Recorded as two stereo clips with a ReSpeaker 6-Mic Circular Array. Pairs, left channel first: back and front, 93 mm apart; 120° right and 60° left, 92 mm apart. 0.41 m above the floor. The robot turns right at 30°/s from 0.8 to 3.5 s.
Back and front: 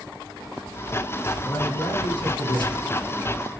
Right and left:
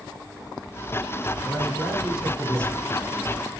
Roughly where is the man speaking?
Behind left.